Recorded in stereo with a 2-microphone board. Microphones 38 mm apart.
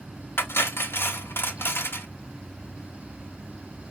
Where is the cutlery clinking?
75° left (ahead or behind), 0.8 m.